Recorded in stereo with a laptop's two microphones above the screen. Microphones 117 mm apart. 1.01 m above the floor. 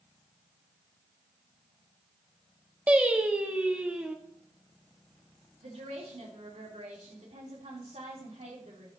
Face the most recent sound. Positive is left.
turn(degrees=-70)  # may be behind; listen again after turning